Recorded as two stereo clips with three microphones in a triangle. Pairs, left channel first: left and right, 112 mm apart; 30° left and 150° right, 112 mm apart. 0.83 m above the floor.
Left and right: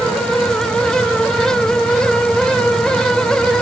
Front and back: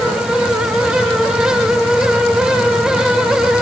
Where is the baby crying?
No baby crying in this recording.